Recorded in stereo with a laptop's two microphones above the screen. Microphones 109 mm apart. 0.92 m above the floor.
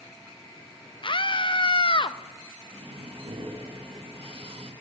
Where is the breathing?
55° right (ahead or behind), 1.1 m.